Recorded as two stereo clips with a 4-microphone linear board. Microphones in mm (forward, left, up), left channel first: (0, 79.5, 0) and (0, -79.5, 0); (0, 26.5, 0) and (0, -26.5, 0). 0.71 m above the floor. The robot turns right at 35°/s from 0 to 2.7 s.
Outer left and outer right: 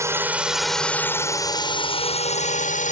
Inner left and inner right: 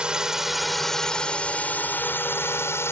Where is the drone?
20° right (ahead or behind); by 2.9 s 50° left (ahead or behind).